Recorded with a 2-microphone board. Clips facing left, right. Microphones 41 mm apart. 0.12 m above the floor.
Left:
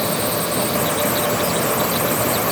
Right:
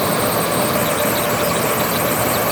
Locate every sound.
Only background noise.